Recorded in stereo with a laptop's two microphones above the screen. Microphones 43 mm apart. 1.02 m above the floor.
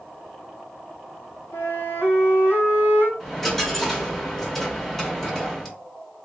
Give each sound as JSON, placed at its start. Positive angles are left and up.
{"t": 1.5, "sound": "a flute", "side_deg": 60, "distance_m": 1.6}
{"t": 3.2, "sound": "a dropped coin", "side_deg": 10, "distance_m": 1.3}